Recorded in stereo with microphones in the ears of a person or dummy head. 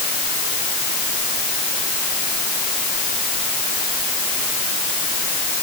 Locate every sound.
Only background noise.